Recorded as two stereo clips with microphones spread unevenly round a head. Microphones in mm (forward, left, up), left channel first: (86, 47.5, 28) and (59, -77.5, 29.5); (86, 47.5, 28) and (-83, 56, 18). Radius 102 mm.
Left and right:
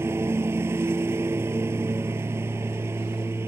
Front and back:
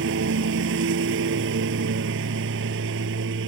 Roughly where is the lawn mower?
Behind.